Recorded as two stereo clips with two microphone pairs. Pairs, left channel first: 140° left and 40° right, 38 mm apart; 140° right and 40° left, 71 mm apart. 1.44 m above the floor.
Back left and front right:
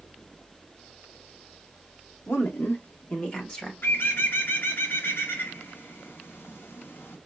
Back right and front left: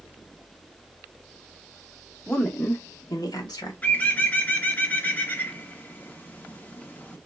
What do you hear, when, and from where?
2.3 s a woman speaking: 140° left, 1.0 m; by 3.7 s 150° right, 1.3 m
3.8 s a bird: 155° left, 0.7 m